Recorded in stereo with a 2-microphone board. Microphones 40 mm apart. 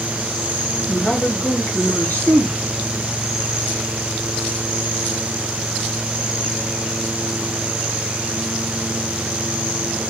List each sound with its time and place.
0.9 s a man speaking: 55° left (ahead or behind), 3 m